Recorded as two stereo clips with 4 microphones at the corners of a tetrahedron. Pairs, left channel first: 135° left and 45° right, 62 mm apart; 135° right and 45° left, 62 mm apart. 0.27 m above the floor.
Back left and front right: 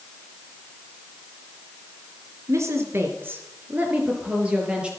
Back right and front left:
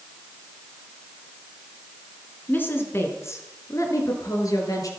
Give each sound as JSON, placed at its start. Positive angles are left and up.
{"t": 2.5, "sound": "a woman speaking", "azimuth_deg": -80, "distance_m": 3.5}